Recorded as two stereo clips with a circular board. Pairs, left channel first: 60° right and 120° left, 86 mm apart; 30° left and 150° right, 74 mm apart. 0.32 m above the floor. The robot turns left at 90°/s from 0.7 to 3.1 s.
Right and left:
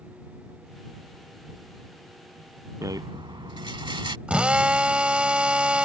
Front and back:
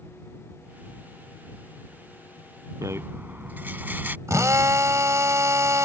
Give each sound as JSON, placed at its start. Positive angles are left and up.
{"t": 2.8, "sound": "a rattle", "azimuth_deg": 175}
{"t": 4.3, "sound": "a drill", "azimuth_deg": -165}